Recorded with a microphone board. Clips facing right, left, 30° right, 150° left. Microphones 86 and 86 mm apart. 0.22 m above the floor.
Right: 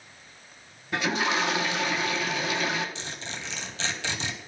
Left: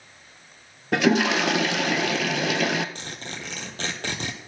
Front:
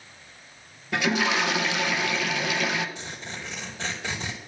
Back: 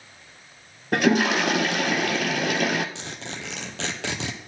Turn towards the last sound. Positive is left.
turn(degrees=135)